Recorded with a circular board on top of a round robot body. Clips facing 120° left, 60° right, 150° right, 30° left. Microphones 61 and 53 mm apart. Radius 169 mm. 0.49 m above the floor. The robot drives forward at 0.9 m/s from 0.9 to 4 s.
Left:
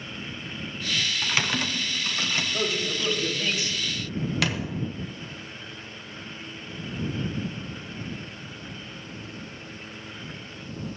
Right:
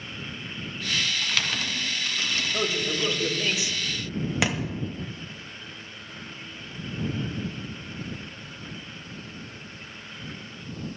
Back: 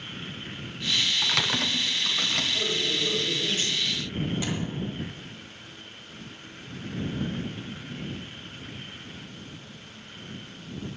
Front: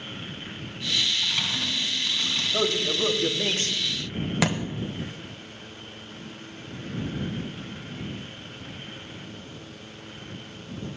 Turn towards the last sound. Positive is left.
turn(degrees=10)